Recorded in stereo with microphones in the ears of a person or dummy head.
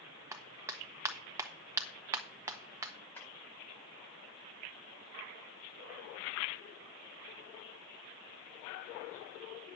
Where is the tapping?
10° left (ahead or behind), 8.5 m.